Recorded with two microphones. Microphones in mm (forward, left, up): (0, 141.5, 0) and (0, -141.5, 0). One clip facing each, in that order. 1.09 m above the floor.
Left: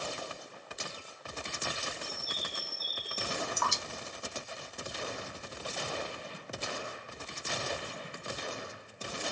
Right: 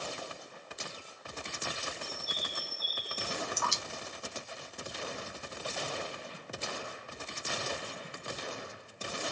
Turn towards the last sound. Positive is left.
turn(degrees=65)  # may be behind; listen again after turning